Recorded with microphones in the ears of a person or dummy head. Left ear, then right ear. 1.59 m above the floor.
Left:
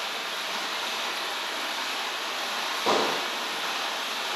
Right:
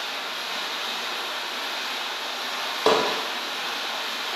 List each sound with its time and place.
0.0 s running water: 75° left (ahead or behind), 0.9 m
2.9 s hammering: 65° right (ahead or behind), 0.5 m